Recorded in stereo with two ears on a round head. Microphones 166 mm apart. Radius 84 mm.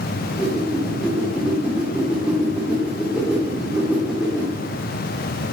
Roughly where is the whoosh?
Centre.